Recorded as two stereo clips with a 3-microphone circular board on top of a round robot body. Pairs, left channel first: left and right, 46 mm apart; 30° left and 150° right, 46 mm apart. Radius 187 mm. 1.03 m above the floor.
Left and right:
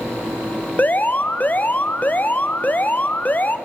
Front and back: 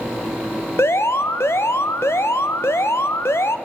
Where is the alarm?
40° left, 1.1 m.